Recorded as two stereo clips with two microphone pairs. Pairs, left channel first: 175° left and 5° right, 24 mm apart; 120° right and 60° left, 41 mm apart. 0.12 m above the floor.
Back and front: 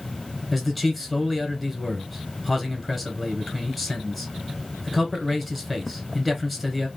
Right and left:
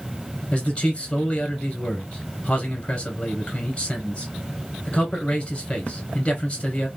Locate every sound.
0.5 s a man speaking: 110° right, 1.1 m